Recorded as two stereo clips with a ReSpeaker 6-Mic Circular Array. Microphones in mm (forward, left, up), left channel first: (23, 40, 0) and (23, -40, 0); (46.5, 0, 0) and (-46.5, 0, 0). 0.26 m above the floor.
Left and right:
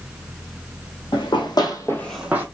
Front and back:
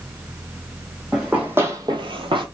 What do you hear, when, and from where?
1.1 s running footsteps: 100° left, 1.3 m; by 2.5 s 150° right, 0.7 m